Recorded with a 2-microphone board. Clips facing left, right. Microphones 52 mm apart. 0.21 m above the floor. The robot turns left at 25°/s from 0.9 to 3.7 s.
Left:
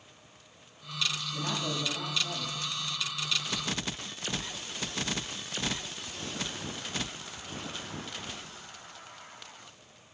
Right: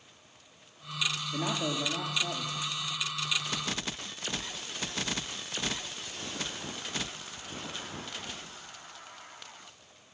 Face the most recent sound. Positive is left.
turn(degrees=-155)